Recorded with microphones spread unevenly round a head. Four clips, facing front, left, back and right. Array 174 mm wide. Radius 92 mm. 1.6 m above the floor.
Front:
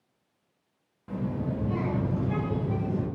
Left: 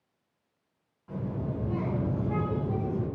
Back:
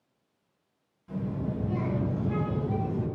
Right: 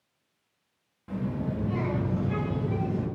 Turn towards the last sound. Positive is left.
turn(degrees=-65)